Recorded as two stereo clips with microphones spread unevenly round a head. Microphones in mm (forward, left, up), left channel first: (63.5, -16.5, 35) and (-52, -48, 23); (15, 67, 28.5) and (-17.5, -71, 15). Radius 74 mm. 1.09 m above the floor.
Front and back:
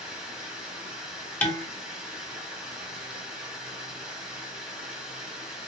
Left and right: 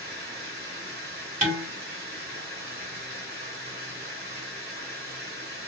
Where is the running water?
80° right, 1.4 m.